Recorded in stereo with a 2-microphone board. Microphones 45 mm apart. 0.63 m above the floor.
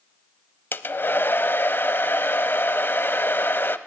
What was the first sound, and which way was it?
A hair dryer, 50° left (ahead or behind).